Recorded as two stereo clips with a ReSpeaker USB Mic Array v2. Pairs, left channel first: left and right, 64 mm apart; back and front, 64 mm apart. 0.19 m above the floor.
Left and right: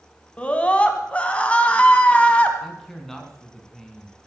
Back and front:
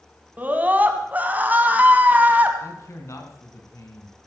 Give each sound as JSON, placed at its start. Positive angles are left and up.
{"t": 0.4, "sound": "a scream", "azimuth_deg": 40, "distance_m": 1.7}
{"t": 2.6, "sound": "a man speaking", "azimuth_deg": 175, "distance_m": 2.5}